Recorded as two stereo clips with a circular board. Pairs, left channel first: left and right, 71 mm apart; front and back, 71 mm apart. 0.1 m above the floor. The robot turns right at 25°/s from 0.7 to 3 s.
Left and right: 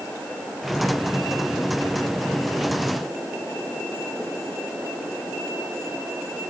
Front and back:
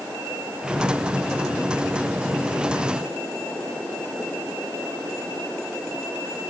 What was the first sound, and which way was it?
Only background noise.